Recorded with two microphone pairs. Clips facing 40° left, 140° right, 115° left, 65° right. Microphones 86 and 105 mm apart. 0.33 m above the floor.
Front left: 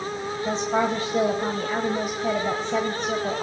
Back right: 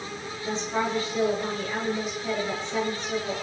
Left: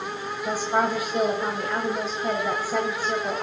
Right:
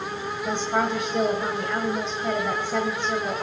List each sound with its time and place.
0.5 s a woman speaking: 35° left, 1.5 m